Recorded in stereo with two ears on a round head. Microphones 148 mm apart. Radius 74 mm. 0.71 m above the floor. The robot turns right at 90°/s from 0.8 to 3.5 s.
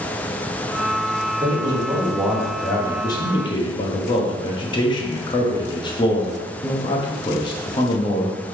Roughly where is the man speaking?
Right.